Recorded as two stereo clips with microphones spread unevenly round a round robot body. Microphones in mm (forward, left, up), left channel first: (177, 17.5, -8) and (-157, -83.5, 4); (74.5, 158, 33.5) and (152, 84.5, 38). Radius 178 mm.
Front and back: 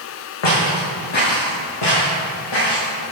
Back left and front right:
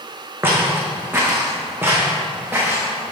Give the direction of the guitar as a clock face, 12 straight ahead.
I don't hear a guitar.